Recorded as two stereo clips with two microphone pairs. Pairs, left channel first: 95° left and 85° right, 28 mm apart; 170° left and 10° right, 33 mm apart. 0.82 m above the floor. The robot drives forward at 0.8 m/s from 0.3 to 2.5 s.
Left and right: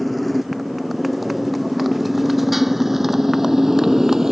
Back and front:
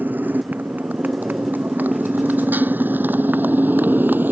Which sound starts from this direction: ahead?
A motorcycle, at 0.0 s.